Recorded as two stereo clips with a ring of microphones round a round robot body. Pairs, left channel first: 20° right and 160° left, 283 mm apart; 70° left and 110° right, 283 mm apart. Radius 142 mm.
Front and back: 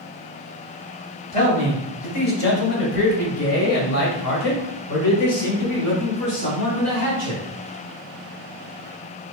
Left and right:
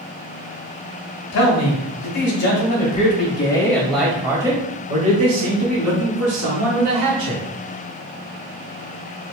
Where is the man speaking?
40° left, 1.8 m; by 7.4 s 75° right, 2.5 m.